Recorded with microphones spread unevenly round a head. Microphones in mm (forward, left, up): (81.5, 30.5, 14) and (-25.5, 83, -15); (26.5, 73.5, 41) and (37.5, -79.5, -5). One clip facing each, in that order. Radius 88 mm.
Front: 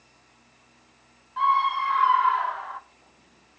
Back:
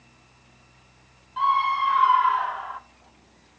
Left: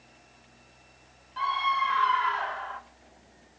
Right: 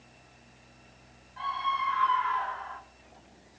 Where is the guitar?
I don't hear a guitar.